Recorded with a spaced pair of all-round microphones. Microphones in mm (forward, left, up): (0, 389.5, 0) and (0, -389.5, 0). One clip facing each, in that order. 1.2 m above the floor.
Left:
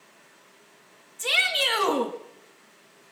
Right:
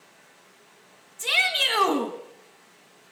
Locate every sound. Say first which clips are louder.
0.0 s running water: even; 25° right (ahead or behind), 6 m
1.2 s a shout: left 3 dB; 5° left (ahead or behind), 2.0 m